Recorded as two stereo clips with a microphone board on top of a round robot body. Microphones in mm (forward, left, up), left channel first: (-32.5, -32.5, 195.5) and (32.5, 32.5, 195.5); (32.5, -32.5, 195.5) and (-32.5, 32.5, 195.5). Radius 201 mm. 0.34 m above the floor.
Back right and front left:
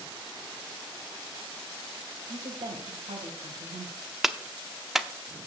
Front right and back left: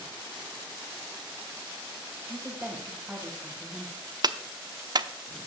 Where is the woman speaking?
60° left, 3 m.